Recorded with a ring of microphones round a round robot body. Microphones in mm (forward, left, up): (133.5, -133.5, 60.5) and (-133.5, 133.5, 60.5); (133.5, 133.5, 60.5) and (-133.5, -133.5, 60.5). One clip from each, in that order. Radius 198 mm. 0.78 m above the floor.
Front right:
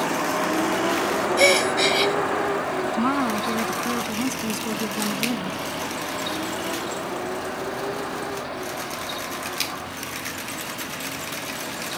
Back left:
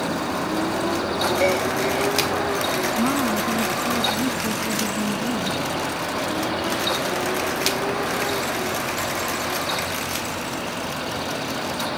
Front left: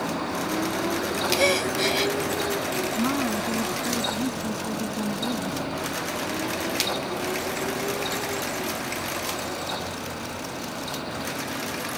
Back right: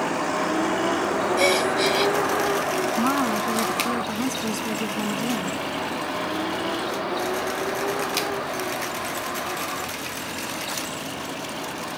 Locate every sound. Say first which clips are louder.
0.0 s a vehicle: front right 2 dB, back right 4 dB; 85° right; by 12.0 s 145° right
1.4 s a gasp: front right 6 dB, back right 2 dB; 50° right
2.9 s a woman speaking: back left 1 dB, back right 4 dB; 90° right